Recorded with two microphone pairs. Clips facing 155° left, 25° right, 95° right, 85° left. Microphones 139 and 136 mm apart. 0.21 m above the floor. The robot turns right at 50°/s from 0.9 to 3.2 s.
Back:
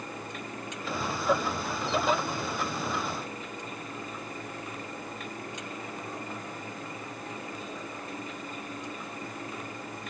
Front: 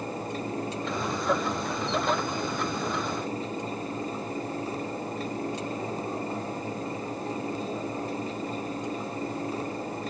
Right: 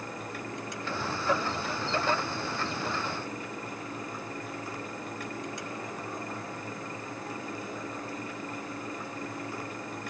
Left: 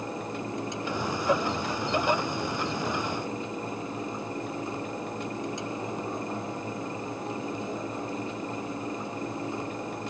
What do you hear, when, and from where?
Only background noise.